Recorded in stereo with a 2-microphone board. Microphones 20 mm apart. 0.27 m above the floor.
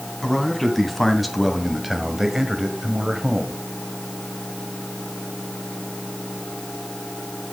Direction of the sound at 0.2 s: 15° left (ahead or behind).